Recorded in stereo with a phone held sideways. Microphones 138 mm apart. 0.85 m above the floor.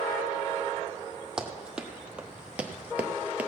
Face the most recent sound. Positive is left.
turn(degrees=-10)  # may be behind; listen again after turning